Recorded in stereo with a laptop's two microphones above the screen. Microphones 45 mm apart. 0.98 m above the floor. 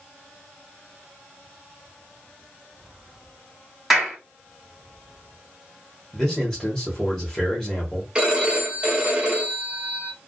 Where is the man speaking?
10° left (ahead or behind), 1.2 m.